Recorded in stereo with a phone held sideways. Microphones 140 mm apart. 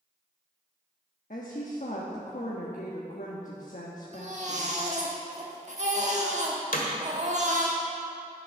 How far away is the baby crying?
About 1.5 m.